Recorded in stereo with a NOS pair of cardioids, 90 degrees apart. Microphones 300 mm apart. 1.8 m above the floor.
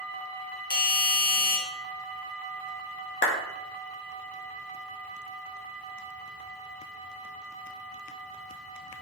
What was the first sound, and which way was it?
A doorbell, 30° left.